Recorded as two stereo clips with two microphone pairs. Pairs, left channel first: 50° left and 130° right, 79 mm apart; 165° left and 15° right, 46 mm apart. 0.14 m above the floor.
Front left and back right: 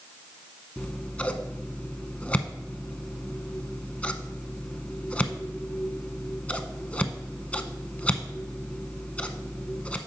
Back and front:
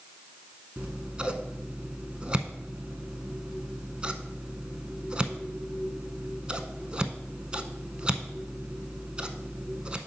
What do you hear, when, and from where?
0.8 s scissors: 10° left, 0.6 m